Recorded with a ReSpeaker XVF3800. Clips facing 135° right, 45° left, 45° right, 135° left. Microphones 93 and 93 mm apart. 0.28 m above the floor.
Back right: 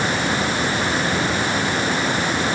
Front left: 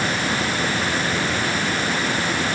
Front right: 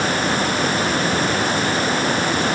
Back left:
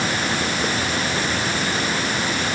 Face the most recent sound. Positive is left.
No sound to turn to.